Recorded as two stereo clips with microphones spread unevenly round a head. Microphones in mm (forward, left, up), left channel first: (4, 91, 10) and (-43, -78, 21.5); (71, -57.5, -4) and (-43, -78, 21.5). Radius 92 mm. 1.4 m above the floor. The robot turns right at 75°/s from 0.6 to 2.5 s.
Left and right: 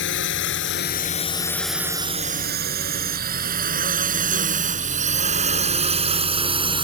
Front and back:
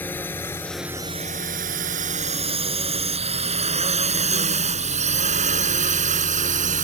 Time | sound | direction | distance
0.0 | a drone | 90° left | ?